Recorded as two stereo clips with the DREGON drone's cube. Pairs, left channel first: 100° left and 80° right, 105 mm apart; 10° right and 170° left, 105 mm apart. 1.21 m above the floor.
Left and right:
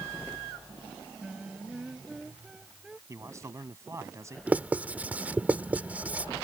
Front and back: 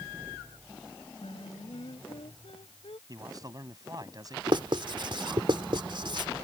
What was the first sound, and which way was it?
Singing, 5° left.